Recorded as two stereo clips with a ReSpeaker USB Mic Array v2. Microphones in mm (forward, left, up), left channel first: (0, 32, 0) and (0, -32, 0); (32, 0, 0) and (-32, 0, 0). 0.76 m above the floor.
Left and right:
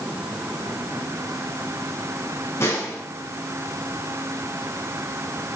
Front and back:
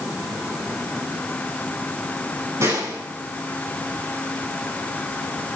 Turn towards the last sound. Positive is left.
turn(degrees=135)